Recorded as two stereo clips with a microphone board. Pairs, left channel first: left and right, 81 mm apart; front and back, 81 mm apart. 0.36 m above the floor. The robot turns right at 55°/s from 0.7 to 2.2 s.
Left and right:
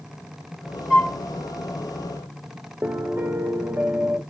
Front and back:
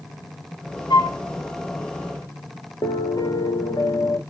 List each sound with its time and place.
0.9 s a flute: 10° right, 2 m; by 1.2 s 5° left, 2 m
2.8 s a piano: 30° right, 0.7 m